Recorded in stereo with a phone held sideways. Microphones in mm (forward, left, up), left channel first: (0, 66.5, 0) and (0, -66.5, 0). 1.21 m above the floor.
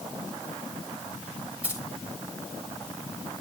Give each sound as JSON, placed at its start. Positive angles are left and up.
{"t": 1.6, "sound": "keys jangling", "side_deg": -10, "distance_m": 6.0}